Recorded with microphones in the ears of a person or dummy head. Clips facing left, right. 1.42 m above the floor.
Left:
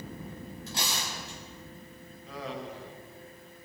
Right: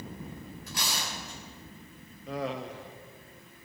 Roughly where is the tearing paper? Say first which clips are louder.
Even; left.